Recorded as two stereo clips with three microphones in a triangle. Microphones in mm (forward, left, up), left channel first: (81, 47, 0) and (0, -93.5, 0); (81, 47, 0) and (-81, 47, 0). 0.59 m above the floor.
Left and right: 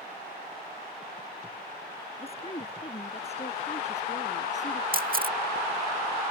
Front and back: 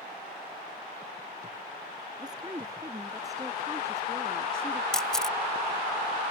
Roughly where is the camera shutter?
Right.